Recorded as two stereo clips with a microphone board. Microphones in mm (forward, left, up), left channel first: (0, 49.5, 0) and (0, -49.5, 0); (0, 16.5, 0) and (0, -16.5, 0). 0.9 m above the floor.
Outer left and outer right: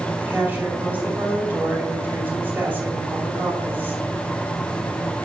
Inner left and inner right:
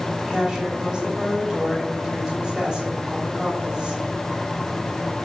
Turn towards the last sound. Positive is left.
turn(degrees=-20)  # may be behind; listen again after turning